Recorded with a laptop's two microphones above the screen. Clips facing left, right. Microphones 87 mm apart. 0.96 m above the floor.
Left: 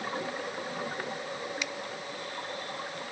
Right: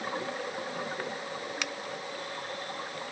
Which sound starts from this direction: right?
A finger snap, at 1.6 s.